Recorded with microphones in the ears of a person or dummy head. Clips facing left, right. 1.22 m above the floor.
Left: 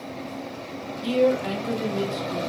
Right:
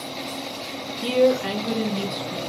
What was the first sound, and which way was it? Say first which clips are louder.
A woman speaking: right 2 dB; 80° right.